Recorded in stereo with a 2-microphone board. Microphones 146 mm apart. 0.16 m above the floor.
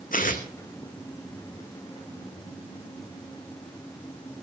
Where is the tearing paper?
70° left (ahead or behind), 2.5 m.